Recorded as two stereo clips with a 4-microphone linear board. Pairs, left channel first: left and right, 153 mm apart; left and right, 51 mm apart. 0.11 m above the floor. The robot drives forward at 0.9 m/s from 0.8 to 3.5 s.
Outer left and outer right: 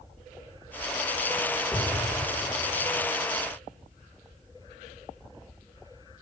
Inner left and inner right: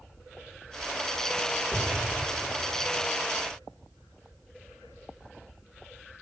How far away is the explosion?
About 5 m.